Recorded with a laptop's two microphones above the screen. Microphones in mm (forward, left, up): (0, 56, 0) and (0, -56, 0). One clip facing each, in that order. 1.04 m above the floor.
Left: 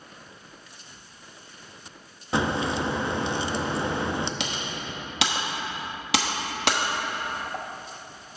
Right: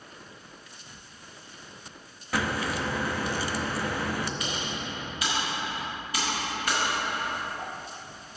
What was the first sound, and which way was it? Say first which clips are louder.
A crack: left 4 dB; 25° left (ahead or behind).